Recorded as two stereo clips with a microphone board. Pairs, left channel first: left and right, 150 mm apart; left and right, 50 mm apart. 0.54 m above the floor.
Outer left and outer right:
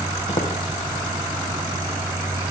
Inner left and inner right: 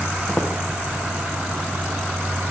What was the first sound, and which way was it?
Footsteps, 40° left (ahead or behind).